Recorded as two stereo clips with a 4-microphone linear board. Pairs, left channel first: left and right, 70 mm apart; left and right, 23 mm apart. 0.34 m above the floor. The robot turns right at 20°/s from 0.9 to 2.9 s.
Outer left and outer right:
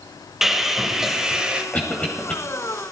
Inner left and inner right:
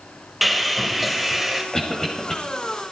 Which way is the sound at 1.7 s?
25° left (ahead or behind).